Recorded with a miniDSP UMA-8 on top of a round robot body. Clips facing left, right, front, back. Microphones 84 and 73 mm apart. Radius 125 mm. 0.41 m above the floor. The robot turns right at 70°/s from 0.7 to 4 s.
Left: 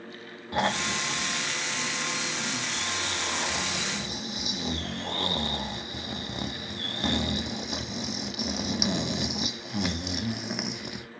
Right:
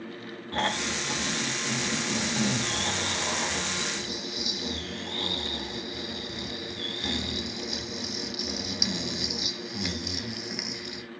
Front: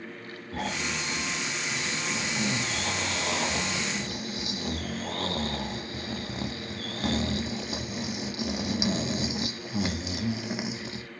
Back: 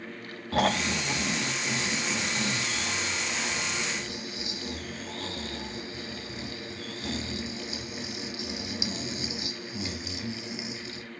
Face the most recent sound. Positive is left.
turn(degrees=40)